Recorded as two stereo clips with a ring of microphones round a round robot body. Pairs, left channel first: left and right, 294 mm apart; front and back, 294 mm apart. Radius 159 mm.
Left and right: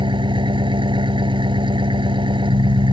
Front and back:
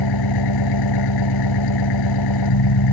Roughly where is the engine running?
Ahead.